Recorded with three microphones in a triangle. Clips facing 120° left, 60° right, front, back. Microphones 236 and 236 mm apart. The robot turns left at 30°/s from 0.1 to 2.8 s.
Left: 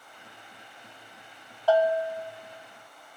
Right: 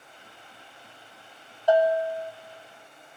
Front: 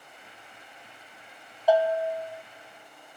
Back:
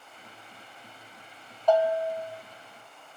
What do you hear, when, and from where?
1.7 s a bell: 65° right, 1.3 m; by 2.3 s 85° right, 1.3 m